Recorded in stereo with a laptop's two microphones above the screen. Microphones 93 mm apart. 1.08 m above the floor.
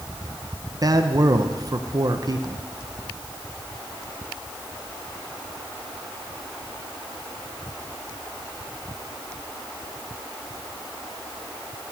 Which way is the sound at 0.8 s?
45° right (ahead or behind).